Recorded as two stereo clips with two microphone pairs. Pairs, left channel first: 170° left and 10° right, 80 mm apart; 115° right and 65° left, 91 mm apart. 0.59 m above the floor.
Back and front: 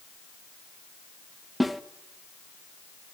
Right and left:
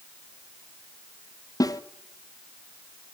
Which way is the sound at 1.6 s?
100° right.